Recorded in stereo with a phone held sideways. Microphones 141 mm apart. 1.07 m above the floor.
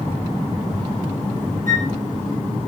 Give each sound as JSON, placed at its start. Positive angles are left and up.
{"t": 1.7, "sound": "a flute", "side_deg": -75, "distance_m": 6.0}